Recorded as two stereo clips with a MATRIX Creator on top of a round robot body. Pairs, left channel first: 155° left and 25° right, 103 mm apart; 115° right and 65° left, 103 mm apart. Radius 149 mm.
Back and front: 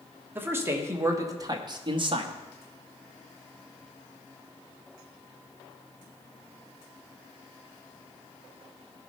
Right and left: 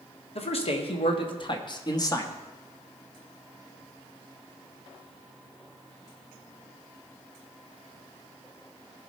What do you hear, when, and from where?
0.3 s a man speaking: 95° right, 1.7 m; by 2.4 s 50° right, 1.3 m